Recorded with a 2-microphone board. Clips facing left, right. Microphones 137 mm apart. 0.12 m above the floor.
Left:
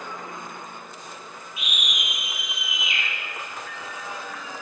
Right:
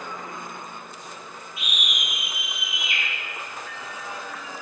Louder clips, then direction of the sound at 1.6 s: Even; 20° left (ahead or behind).